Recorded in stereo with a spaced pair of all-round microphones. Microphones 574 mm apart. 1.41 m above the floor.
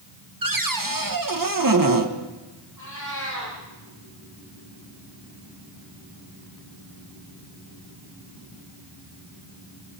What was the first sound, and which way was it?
A cupboard door, 35° right (ahead or behind).